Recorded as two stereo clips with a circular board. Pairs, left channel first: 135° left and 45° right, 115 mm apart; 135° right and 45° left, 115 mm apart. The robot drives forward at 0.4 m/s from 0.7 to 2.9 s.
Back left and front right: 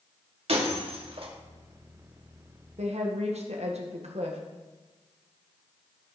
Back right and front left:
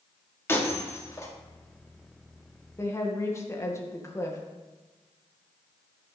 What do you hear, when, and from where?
0.5 s breaking glass: 65° right, 2.0 m; by 1.3 s 75° right, 1.9 m
2.8 s a woman speaking: 65° right, 1.9 m; by 4.4 s 70° right, 1.9 m